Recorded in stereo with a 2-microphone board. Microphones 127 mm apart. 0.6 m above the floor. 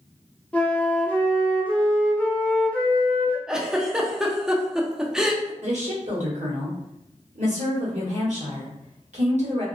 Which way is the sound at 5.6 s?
65° right (ahead or behind).